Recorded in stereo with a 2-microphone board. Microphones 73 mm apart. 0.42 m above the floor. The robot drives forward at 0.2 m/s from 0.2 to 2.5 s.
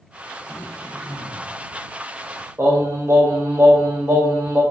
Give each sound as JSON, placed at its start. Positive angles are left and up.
{"t": 0.5, "sound": "throat clearing", "side_deg": 20, "distance_m": 1.0}
{"t": 2.6, "sound": "singing", "side_deg": -35, "distance_m": 1.4}